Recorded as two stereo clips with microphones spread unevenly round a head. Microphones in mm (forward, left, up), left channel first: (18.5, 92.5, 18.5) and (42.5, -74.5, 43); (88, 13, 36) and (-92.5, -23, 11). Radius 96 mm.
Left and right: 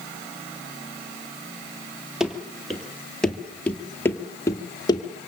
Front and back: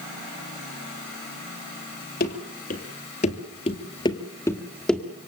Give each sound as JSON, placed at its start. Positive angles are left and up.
{"t": 2.2, "sound": "running footsteps", "azimuth_deg": 0, "distance_m": 3.0}